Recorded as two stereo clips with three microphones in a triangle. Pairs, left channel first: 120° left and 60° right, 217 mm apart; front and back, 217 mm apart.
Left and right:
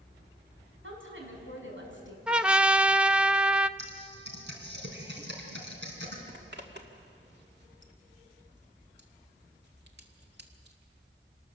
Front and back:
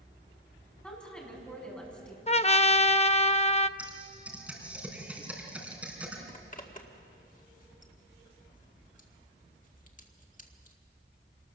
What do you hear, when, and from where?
0.8 s a woman speaking: 85° right, 5.5 m
2.3 s a trumpet: 20° left, 0.5 m
3.8 s typing on a keyboard: 95° right, 4 m
6.3 s a zipper: 45° right, 2.0 m